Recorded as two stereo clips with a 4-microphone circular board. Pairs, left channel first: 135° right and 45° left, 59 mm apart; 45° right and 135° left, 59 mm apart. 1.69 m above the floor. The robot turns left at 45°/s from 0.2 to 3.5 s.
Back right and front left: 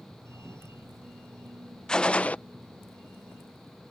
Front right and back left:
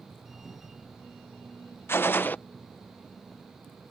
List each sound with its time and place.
1.9 s a gunshot: 65° right; by 2.4 s 85° right